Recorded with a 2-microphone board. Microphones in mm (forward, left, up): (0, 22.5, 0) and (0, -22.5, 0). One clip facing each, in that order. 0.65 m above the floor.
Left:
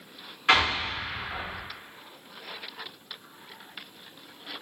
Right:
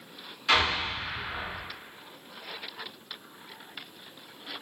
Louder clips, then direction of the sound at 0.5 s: Left 2 dB; 35° left (ahead or behind).